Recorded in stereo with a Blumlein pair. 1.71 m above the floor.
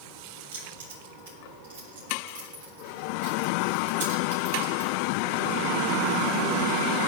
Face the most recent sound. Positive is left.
turn(degrees=-60)